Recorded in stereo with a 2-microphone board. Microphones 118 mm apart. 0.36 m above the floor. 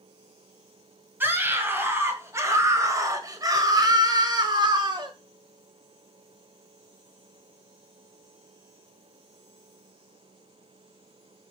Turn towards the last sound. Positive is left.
turn(degrees=-40)  # may be behind; listen again after turning